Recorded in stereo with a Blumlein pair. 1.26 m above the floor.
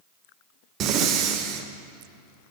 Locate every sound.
0.8 s breathing: 35° right, 0.6 m